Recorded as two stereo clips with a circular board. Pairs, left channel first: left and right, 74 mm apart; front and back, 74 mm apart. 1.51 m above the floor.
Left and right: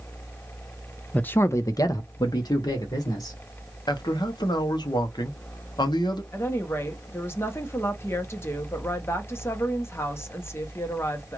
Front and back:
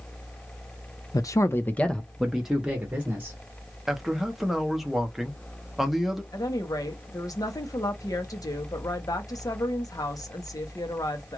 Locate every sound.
1.1 s a man speaking: 20° left, 0.6 m; by 3.4 s 110° left, 1.4 m
3.9 s a man speaking: 95° left, 0.8 m
6.3 s a woman speaking: 35° left, 0.8 m